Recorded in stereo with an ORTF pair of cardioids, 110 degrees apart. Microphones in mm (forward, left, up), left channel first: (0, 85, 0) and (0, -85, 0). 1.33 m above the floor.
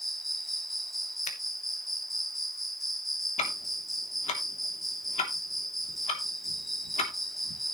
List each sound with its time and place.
0.0 s an insect: straight ahead, 1.1 m
1.2 s a finger snap: 45° left, 3 m
3.4 s ticking: 40° left, 3 m